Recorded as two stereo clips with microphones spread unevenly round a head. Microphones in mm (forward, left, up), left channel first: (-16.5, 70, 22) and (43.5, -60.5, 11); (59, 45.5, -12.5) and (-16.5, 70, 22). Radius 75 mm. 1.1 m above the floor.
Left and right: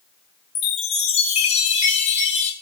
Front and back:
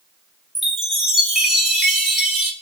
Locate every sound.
0.6 s a chime: 70° left, 3 m